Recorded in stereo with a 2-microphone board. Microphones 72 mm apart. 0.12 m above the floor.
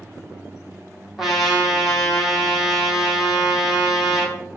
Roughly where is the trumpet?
Centre.